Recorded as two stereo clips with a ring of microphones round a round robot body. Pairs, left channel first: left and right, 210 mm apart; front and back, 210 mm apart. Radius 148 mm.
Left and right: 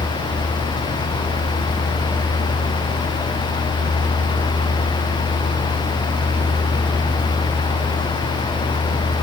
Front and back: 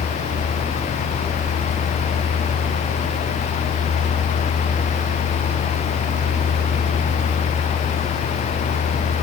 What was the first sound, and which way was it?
Only background noise.